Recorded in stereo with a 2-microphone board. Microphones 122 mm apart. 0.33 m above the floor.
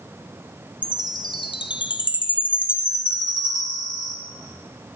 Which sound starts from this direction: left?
A chime, at 0.8 s.